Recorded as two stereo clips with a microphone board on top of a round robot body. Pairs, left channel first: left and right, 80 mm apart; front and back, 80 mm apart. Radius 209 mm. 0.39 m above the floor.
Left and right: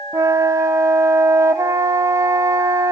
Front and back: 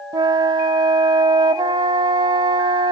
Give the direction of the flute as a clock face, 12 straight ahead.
5 o'clock.